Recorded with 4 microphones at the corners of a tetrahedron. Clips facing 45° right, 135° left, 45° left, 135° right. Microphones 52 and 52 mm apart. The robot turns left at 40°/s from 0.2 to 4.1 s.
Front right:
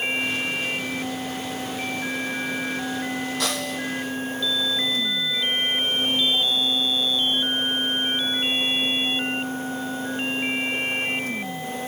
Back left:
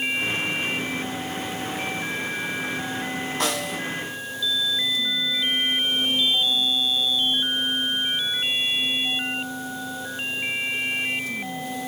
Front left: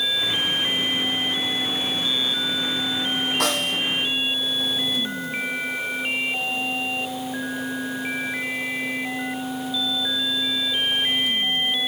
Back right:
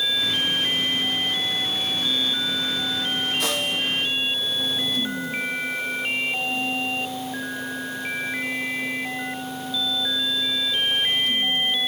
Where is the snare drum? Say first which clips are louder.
Back left 1 dB, front left 2 dB; 70° left, 6.5 m; by 3.8 s 50° left, 6.5 m.